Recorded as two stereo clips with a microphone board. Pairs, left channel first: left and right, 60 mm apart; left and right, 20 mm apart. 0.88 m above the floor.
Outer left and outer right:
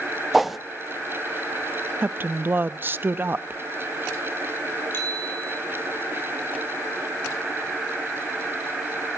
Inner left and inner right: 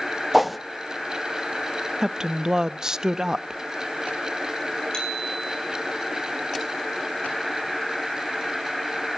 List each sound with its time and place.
0.3 s a whoosh: centre (ahead or behind), 0.7 m
2.0 s a woman speaking: 35° right (ahead or behind), 0.7 m
4.9 s a bicycle bell: 40° left (ahead or behind), 8 m